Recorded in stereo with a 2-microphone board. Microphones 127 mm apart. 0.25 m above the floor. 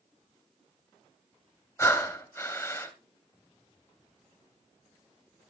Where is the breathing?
20° left (ahead or behind), 0.9 m.